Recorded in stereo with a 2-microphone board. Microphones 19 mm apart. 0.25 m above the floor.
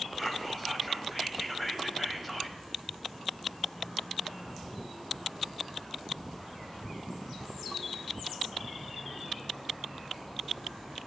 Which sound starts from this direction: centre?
Whispering, at 0.2 s.